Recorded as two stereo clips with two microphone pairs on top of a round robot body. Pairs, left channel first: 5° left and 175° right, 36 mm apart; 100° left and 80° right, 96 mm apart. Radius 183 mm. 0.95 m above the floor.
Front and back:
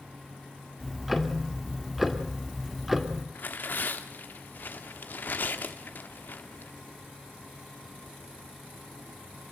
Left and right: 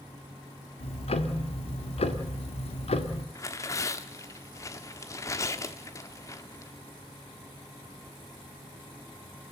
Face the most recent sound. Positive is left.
turn(degrees=45)